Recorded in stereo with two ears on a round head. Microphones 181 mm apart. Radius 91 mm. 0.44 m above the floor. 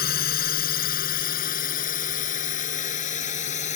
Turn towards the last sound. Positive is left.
turn(degrees=35)  # may be behind; listen again after turning